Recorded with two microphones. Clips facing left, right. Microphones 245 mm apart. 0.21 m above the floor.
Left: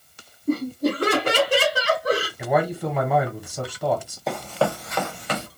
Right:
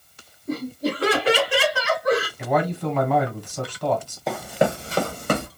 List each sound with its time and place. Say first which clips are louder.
0.5 s laughter: left 4 dB; 55° left (ahead or behind), 2 m; by 2.3 s 30° left (ahead or behind), 1.6 m
2.4 s a man speaking: left 1 dB; 10° left (ahead or behind), 1.5 m
4.3 s running footsteps: right 2 dB; centre (ahead or behind), 0.7 m; by 5.5 s 55° right (ahead or behind), 0.8 m